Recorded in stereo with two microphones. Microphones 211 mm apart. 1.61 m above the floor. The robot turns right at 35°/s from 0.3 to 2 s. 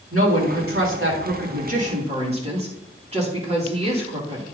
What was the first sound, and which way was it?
A woman speaking, 85° right.